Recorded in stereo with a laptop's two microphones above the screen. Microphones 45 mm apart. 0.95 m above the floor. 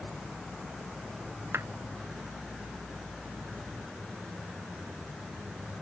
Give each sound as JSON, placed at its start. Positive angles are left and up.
{"t": 1.5, "sound": "a clap", "side_deg": -75}